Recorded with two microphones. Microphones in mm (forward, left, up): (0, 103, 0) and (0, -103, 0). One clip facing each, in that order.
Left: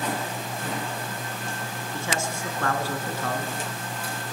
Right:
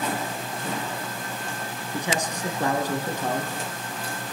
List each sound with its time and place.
1.9 s a man speaking: 15° right (ahead or behind), 2.5 m